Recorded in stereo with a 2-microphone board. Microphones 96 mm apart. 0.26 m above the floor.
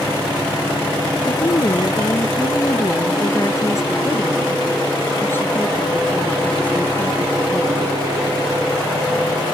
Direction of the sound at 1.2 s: 45° left (ahead or behind).